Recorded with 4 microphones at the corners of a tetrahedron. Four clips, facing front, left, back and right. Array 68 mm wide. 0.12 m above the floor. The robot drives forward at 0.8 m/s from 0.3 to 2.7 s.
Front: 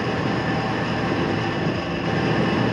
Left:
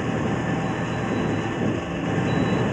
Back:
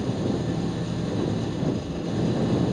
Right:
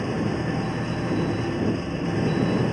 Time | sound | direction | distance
0.0 | an engine running | 15° left | ?